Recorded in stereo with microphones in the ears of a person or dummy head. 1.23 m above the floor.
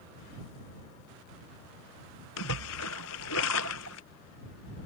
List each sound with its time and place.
2.4 s a splash: 70° left (ahead or behind)